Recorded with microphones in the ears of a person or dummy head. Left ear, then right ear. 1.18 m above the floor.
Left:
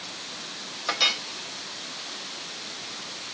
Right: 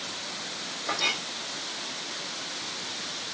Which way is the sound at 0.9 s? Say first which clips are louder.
Left 4 dB; 55° left (ahead or behind).